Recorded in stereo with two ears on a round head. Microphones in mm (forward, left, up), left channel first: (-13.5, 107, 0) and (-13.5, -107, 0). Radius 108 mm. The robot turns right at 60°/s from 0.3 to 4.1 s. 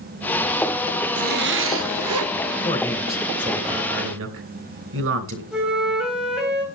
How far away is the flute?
About 3.5 m.